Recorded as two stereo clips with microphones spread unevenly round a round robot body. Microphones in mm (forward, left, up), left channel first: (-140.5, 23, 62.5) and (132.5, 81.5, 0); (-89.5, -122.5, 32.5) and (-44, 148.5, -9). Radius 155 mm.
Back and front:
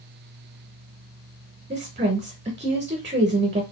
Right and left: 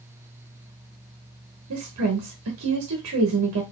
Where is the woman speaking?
65° left, 1.0 m.